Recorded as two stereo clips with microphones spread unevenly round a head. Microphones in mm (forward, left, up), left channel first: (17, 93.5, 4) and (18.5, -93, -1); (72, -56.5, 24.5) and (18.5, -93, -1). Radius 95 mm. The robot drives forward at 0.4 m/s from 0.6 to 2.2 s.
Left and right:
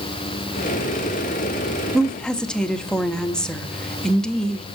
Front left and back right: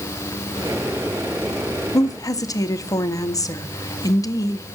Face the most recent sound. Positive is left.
turn(degrees=5)